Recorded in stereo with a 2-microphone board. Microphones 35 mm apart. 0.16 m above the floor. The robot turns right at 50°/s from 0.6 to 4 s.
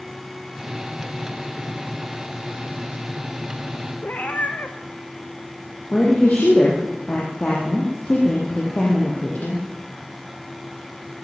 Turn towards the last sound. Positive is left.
turn(degrees=45)  # may be behind; listen again after turning